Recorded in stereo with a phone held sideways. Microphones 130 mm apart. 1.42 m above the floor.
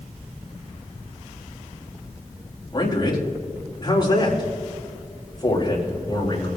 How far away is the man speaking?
About 3 m.